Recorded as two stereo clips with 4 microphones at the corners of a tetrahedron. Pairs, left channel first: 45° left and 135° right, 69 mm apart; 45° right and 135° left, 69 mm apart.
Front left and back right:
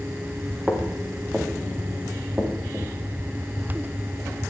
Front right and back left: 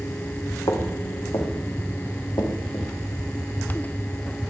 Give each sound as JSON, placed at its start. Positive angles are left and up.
{"t": 0.7, "sound": "footsteps", "azimuth_deg": -50, "distance_m": 5.0}